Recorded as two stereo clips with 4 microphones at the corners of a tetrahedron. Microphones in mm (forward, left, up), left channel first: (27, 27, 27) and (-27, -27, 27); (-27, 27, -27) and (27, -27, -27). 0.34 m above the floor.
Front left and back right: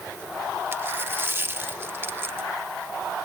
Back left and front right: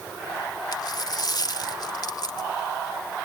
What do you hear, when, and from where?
0.7 s a dropped coin: 165° left